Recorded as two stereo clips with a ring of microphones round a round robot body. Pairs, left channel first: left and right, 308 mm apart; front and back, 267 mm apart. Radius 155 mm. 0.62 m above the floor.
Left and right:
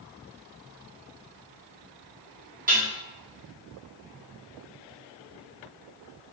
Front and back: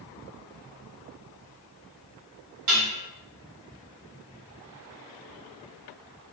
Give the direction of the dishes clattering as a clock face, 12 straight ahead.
5 o'clock.